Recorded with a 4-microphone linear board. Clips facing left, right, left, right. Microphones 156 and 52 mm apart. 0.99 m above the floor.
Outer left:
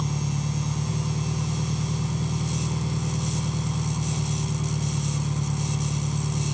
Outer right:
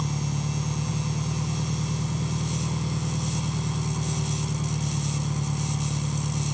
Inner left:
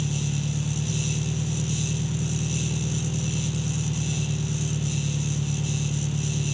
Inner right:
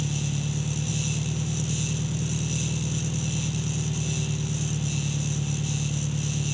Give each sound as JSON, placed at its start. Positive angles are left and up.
{"t": 0.0, "sound": "an engine running", "side_deg": -5}